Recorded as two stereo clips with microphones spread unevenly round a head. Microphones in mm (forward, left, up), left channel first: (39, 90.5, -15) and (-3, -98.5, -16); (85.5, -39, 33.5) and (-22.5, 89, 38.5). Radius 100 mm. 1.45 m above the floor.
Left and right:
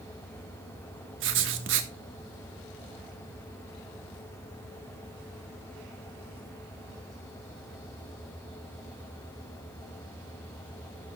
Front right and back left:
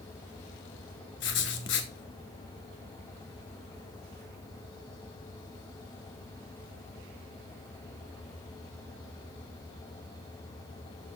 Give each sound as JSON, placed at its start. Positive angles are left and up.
{"t": 1.2, "sound": "writing", "azimuth_deg": -85, "distance_m": 1.3}